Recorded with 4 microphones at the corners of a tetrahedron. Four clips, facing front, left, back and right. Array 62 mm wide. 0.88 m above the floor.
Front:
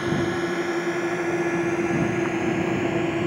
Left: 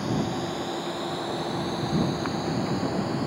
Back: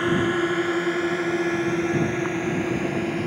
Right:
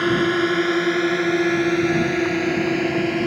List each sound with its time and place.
0.0 s a drone: 105° right; by 3.3 s 80° right